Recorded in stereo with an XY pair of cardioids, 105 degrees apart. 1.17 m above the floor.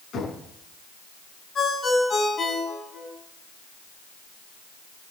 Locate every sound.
0.1 s knocking: 60° left, 8 m
1.6 s a ringtone: 40° left, 6.5 m